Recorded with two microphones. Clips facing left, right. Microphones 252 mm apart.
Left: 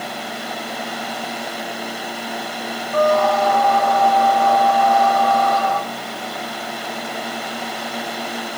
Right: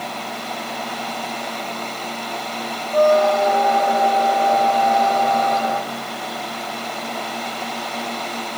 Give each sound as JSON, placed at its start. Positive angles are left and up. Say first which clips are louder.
{"t": 2.9, "sound": "a squeak", "louder": "right 2 dB", "side_deg": -20, "distance_m": 0.5}